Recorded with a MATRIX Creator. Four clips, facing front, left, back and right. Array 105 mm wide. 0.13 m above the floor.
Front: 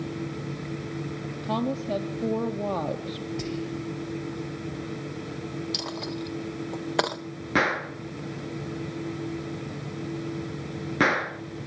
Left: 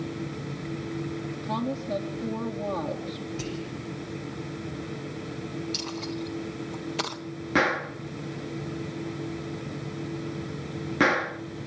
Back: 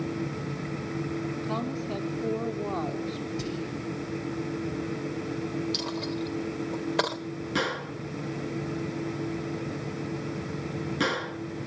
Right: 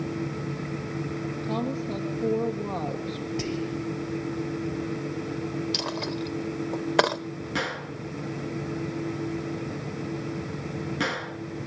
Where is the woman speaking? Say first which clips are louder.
Even, front 3 dB; 5° right, 4.5 m.